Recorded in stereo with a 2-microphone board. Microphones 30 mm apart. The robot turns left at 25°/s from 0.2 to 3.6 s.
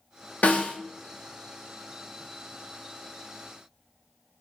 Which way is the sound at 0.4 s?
60° left (ahead or behind).